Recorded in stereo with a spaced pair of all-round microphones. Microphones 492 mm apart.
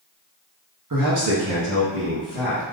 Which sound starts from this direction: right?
A man speaking, at 0.9 s.